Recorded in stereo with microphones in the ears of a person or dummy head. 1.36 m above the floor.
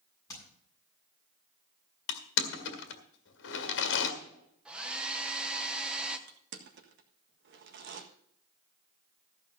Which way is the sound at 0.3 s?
20° left (ahead or behind).